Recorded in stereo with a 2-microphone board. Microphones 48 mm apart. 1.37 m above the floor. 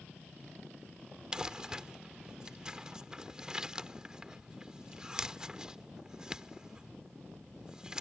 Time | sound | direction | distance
1.3 | crumpling | 15° right (ahead or behind) | ?